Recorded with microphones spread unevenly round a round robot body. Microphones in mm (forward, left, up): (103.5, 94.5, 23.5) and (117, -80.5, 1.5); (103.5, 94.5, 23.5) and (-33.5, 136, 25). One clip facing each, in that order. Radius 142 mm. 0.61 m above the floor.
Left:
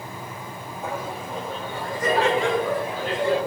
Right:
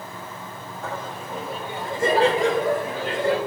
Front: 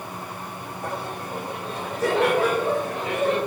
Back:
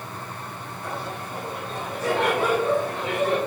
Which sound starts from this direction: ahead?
Laughter, at 0.8 s.